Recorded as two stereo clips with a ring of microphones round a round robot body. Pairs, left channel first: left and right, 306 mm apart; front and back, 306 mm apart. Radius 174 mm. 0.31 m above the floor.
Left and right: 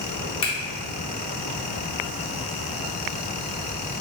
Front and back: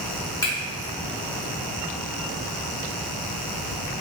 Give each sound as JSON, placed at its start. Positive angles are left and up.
{"t": 0.4, "sound": "a finger snap", "azimuth_deg": 60, "distance_m": 1.1}